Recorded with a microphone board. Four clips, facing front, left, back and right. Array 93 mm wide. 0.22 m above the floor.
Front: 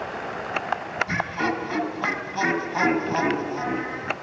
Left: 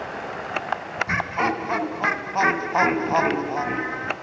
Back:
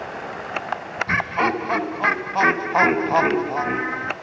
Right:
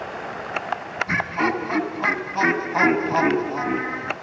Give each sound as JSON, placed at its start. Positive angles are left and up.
{"t": 1.1, "sound": "laughter", "azimuth_deg": 160, "distance_m": 1.5}